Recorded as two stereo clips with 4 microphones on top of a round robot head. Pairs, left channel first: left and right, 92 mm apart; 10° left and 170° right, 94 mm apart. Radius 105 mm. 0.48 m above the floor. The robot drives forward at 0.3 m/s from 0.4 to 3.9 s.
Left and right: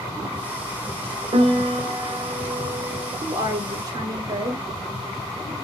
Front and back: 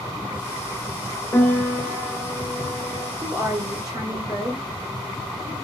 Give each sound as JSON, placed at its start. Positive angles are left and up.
{"t": 1.3, "sound": "a piano", "azimuth_deg": -60, "distance_m": 0.8}
{"t": 3.2, "sound": "a woman speaking", "azimuth_deg": -120, "distance_m": 1.5}